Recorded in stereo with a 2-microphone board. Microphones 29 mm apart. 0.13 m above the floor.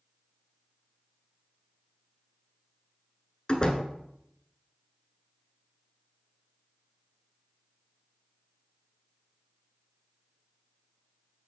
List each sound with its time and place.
3.5 s a door slam: 35° left (ahead or behind), 1.0 m